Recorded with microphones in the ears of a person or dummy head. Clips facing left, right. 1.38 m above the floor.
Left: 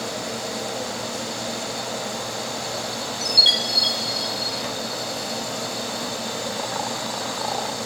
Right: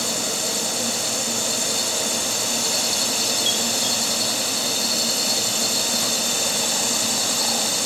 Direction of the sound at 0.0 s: 45° right (ahead or behind).